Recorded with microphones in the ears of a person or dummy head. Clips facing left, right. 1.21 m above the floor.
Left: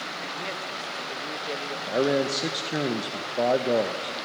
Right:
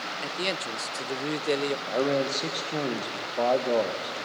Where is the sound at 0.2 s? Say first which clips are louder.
Right 6 dB; 45° right (ahead or behind), 0.5 m.